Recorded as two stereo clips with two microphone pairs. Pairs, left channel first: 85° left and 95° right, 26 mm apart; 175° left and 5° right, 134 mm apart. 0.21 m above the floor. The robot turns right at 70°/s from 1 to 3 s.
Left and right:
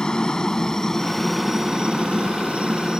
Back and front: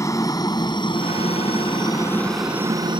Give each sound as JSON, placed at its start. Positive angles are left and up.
{"t": 0.0, "sound": "a helicopter", "azimuth_deg": 125}